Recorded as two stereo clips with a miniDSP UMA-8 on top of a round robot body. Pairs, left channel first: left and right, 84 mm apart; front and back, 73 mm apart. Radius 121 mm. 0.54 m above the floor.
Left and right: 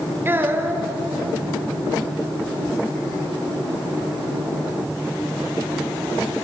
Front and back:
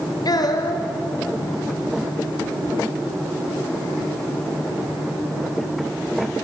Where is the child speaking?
25° right, 2 m.